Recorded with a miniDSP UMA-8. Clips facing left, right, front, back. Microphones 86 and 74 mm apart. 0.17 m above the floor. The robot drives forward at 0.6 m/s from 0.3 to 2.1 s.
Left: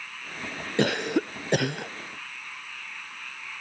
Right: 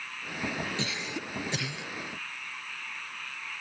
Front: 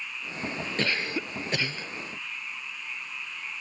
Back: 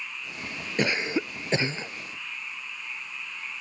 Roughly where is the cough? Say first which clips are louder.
Left 11 dB, back 5 dB; left.